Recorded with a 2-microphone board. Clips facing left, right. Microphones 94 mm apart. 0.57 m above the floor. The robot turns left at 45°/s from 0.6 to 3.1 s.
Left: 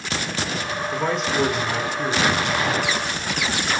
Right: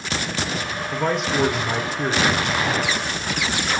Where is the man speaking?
Straight ahead, 0.7 m; by 2.4 s 70° right, 0.7 m.